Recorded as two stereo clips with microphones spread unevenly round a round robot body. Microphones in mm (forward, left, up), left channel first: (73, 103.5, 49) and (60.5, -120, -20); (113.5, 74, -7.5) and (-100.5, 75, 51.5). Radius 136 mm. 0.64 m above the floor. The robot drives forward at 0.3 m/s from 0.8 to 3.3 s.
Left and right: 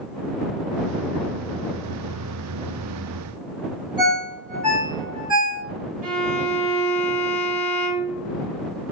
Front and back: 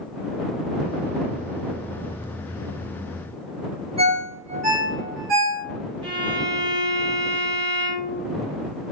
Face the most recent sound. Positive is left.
turn(degrees=-100)